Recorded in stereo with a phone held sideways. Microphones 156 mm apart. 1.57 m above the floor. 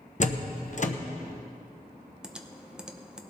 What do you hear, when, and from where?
0.2 s a door slam: 50° left (ahead or behind), 0.9 m
2.2 s typing on a keyboard: 5° right (ahead or behind), 0.7 m